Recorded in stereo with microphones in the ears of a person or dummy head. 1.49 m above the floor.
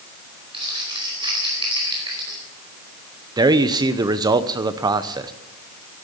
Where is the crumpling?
30° right (ahead or behind), 4.5 m.